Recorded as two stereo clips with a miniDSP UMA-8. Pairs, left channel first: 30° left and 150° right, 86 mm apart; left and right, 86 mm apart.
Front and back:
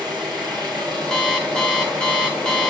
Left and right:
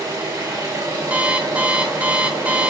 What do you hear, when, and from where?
0.0 s an engine running: 130° right, 3 m
1.1 s an alarm clock: 40° right, 0.6 m